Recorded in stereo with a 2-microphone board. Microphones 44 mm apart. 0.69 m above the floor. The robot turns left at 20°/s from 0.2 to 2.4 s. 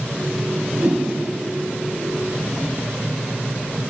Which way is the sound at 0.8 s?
45° right (ahead or behind).